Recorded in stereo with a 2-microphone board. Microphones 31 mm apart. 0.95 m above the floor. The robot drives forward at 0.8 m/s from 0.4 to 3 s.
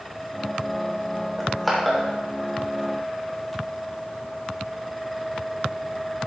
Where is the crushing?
Centre (ahead or behind), 3 m.